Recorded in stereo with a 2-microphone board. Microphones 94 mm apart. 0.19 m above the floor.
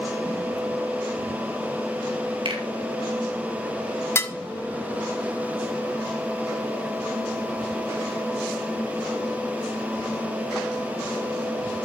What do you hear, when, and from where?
2.5 s a finger snap: 65° right (ahead or behind), 4.5 m
4.2 s dishes clattering: 25° left (ahead or behind), 1.0 m